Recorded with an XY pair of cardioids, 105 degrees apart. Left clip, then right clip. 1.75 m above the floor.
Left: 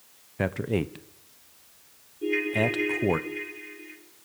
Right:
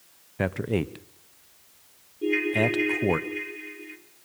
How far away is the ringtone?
About 2.5 m.